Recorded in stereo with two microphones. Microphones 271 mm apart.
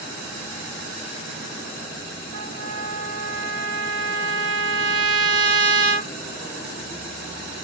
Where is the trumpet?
65° right (ahead or behind), 0.8 m.